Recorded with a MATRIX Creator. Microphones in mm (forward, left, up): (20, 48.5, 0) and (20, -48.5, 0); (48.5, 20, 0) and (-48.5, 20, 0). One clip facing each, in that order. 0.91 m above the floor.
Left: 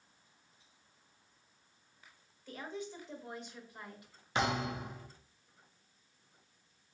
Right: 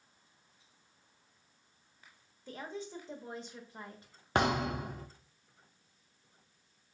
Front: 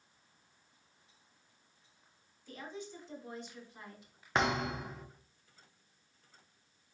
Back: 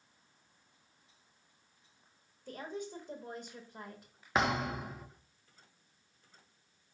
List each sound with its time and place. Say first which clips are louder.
2.5 s a woman speaking: right 1 dB, back 4 dB; 145° right, 1.2 m
4.3 s a thud: right 3 dB, even; 95° right, 0.6 m